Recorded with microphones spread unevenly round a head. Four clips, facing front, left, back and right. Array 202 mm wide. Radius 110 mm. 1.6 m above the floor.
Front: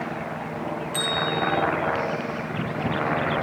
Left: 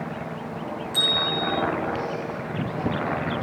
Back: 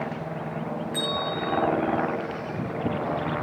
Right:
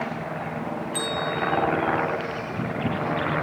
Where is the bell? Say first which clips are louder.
Even, front 4 dB; 110° left, 9 m.